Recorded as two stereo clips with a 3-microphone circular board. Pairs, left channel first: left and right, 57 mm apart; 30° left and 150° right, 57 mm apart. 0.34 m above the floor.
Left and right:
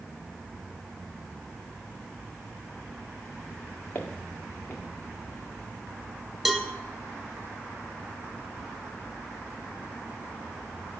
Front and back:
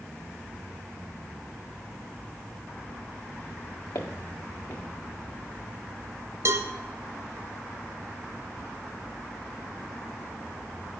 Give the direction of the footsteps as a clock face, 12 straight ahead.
11 o'clock.